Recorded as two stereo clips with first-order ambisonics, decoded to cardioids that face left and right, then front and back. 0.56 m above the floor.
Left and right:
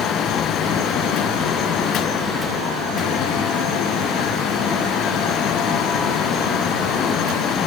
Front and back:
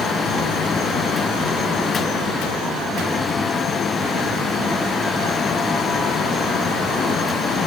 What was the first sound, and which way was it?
Only background noise.